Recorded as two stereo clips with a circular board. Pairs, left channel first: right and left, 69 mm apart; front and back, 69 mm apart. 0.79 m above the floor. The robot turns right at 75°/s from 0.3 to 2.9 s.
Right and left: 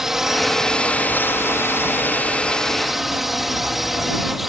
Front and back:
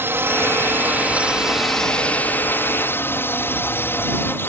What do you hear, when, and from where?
0.0 s a drone: 170° left; by 4.5 s 5° left